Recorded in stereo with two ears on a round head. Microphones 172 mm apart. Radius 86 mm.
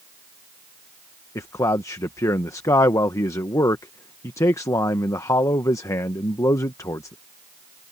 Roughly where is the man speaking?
Centre.